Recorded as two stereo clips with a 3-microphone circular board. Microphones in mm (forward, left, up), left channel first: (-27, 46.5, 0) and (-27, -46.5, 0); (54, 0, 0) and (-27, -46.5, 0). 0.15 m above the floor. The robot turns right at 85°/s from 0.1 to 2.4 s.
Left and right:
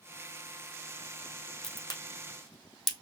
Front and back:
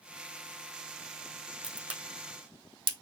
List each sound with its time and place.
1.6 s a crack: 115° left, 1.9 m; by 2.9 s straight behind, 1.9 m